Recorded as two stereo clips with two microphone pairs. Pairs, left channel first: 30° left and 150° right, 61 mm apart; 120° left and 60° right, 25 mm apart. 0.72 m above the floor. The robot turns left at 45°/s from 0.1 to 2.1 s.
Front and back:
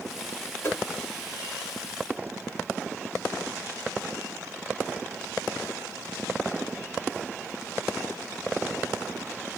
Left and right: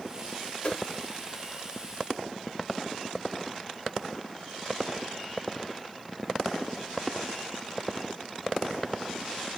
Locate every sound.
0.6 s a whoosh: 75° left, 0.7 m; by 0.8 s 70° left, 0.7 m